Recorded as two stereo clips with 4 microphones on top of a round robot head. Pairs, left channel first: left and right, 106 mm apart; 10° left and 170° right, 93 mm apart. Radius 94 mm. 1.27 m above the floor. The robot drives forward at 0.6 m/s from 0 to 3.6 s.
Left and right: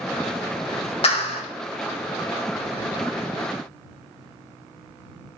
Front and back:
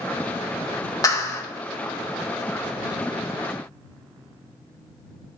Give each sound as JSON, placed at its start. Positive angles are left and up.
{"t": 1.0, "sound": "a clap", "azimuth_deg": 60, "distance_m": 2.0}